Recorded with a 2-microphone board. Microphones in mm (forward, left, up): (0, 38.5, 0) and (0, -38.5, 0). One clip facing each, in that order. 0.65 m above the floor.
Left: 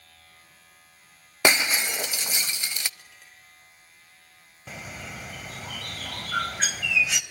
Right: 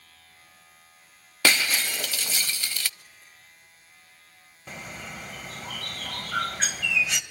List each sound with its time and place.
1.4 s breaking glass: 20° left (ahead or behind), 0.6 m
3.0 s a clink: 85° left, 8.5 m
4.7 s a bird: centre (ahead or behind), 2.5 m